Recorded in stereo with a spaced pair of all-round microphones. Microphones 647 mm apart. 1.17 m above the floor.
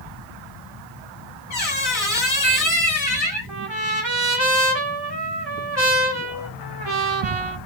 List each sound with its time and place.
1.5 s a squeak: 65° left (ahead or behind), 1.9 m
3.5 s a trumpet: 40° right (ahead or behind), 1.1 m